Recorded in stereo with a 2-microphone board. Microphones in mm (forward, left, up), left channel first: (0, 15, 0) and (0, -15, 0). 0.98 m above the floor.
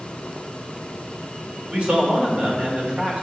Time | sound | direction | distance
1.7 | a man speaking | 45° right (ahead or behind) | 2 m